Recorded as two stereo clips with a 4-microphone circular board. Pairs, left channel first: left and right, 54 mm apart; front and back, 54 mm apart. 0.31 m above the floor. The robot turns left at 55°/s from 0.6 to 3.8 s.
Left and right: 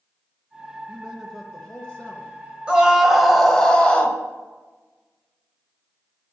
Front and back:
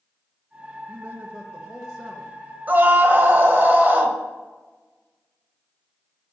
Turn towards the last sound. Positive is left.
turn(degrees=150)